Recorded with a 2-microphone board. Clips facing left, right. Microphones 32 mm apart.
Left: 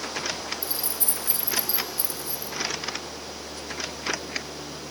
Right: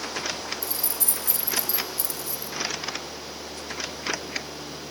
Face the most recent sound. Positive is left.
turn(degrees=25)  # may be behind; listen again after turning